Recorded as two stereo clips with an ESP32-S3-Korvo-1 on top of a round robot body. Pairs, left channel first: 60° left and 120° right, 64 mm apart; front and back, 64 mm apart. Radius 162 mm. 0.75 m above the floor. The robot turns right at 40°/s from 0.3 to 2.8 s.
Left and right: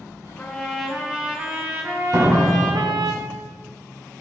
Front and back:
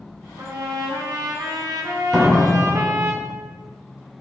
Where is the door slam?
100° right, 2.5 m; by 3.1 s 75° right, 2.5 m.